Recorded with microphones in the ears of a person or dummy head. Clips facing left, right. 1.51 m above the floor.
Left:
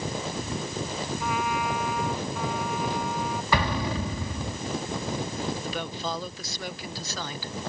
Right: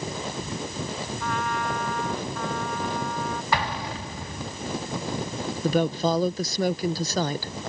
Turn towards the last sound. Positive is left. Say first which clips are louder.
# right 10 dB
turn(degrees=-35)  # may be behind; listen again after turning